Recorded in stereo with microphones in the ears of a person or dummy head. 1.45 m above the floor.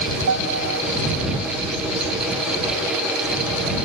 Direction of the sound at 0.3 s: 75° right (ahead or behind).